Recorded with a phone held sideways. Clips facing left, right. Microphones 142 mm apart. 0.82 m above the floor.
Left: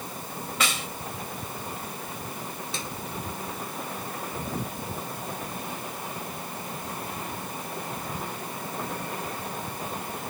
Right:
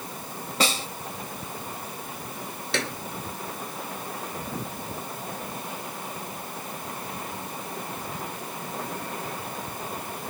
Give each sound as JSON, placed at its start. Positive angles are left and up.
{"t": 0.6, "sound": "a snare drum", "side_deg": -35}
{"t": 2.7, "sound": "a clap", "side_deg": -75}